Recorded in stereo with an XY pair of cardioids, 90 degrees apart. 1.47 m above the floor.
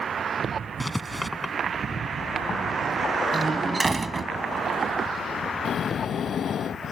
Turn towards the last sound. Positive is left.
turn(degrees=60)